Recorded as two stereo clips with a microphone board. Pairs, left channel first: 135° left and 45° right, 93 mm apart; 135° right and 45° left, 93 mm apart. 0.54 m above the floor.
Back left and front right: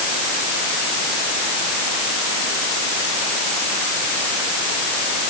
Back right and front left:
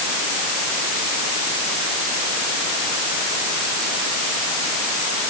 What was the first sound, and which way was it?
Only background noise.